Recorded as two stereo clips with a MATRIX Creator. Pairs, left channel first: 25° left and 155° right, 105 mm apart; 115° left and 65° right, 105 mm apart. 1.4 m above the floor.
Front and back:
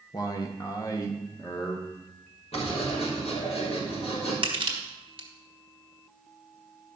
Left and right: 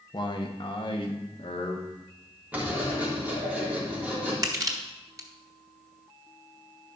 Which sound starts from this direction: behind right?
Crushing, at 4.4 s.